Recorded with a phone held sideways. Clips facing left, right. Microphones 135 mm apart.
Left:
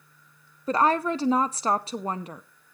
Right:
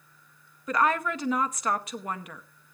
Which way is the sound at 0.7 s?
30° left (ahead or behind).